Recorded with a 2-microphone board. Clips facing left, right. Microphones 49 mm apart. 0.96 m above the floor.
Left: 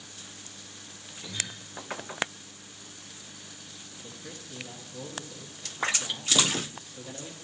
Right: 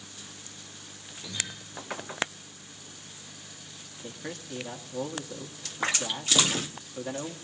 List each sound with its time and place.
1.2 s a guitar: 20° left (ahead or behind), 8.5 m
4.0 s a man speaking: 65° right (ahead or behind), 1.9 m